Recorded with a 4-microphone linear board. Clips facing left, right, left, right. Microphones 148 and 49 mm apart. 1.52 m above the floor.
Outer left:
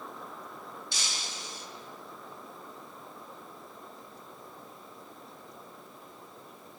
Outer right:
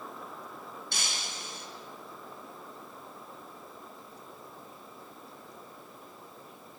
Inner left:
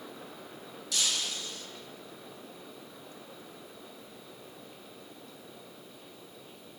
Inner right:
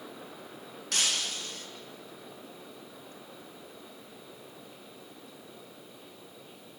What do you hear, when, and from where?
0.9 s breaking glass: 55° right (ahead or behind), 1.1 m